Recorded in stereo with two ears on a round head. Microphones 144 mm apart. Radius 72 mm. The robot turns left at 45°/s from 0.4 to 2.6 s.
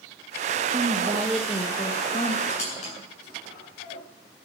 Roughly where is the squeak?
Left.